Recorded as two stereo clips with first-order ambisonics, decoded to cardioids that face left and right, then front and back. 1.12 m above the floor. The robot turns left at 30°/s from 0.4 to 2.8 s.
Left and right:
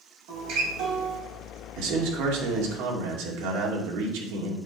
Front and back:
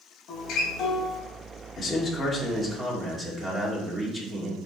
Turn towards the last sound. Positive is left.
turn(degrees=-100)